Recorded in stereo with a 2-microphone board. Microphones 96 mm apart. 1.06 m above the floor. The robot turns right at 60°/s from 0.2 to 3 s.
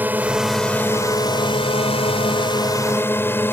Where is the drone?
20° right (ahead or behind); by 3.5 s 20° left (ahead or behind).